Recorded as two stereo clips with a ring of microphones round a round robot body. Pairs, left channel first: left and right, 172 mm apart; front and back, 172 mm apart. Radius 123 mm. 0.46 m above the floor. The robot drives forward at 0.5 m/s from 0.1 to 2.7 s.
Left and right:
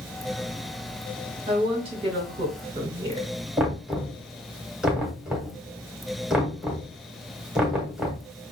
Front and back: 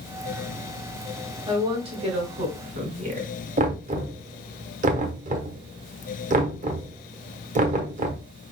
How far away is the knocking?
About 1.0 m.